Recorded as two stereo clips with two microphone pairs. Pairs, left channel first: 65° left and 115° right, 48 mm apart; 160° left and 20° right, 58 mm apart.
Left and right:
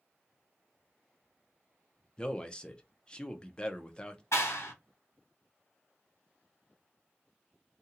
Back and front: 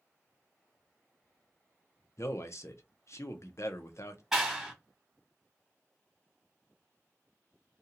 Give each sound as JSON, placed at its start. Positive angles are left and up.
{"t": 2.2, "sound": "a man speaking", "azimuth_deg": 130, "distance_m": 0.6}
{"t": 4.3, "sound": "a clap", "azimuth_deg": 65, "distance_m": 1.1}